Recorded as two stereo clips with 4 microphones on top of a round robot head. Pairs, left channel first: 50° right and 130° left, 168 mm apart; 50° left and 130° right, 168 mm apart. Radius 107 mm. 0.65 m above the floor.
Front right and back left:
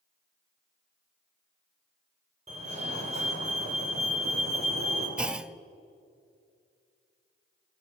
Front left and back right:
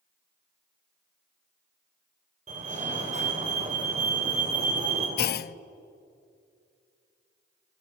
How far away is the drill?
I don't hear a drill.